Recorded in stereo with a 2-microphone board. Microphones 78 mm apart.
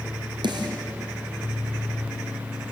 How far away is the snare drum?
About 3.5 m.